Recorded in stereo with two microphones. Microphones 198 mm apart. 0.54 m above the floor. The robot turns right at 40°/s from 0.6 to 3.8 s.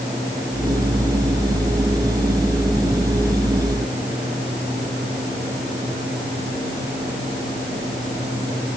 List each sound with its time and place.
Only background noise.